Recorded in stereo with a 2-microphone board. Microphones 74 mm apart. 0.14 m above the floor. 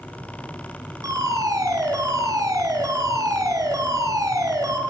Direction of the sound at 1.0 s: 50° right (ahead or behind).